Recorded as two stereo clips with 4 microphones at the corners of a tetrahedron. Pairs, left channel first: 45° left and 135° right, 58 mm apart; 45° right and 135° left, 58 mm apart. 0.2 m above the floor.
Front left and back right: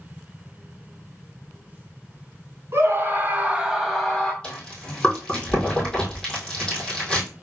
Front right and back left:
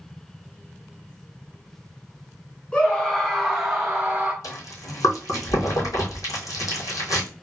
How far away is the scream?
About 1.6 m.